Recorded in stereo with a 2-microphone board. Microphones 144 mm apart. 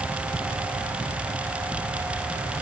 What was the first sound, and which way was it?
Only background noise.